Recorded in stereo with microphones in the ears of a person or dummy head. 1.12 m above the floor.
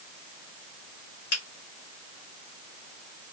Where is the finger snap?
45° left (ahead or behind), 2.5 m.